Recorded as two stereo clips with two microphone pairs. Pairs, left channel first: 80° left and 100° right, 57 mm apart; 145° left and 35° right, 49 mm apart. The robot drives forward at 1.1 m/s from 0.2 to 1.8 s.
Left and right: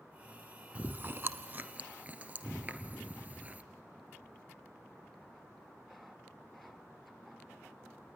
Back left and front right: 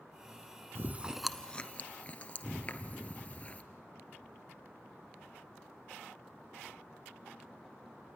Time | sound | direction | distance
0.8 | chewing | 50° right | 0.6 m